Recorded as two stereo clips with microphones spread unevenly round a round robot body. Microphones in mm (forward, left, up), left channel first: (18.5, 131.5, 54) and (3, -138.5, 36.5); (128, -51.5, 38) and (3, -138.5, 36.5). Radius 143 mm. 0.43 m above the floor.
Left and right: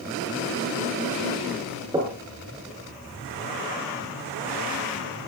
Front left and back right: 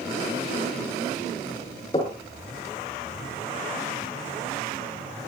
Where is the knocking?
20° right, 6.5 m.